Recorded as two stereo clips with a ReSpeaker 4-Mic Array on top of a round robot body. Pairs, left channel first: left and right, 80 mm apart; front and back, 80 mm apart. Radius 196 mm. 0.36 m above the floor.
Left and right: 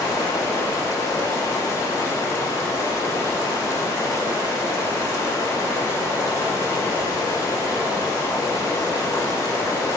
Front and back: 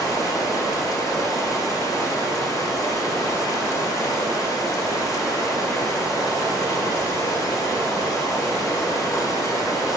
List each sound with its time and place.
0.0 s running water: 40° left, 1.6 m